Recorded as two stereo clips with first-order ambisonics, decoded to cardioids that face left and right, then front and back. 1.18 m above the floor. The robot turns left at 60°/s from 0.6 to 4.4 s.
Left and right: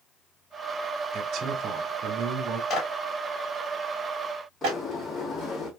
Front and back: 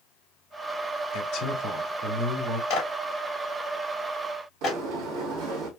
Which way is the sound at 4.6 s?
175° left.